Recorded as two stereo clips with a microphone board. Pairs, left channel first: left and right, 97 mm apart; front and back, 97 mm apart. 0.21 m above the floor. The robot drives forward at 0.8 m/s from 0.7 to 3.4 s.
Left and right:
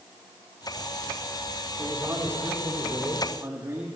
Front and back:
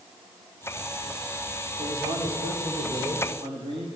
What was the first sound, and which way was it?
A man speaking, 155° right.